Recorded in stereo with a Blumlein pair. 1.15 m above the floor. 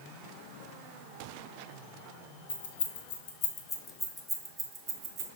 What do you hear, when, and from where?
2.5 s keys jangling: 70° left, 1.5 m; by 5.3 s 35° right, 1.5 m